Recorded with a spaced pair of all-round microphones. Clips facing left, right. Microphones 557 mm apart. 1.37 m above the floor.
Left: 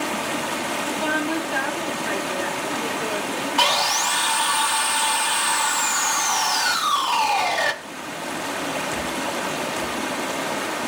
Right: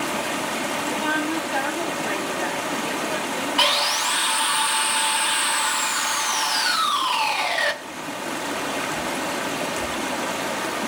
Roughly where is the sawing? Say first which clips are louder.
Left 1 dB; left.